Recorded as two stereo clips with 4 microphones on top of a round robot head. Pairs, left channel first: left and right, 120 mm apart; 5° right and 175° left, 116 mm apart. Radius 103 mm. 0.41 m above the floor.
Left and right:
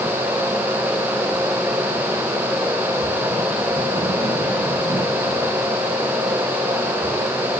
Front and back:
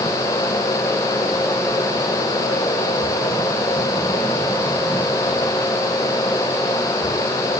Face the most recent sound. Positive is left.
No sound to turn to.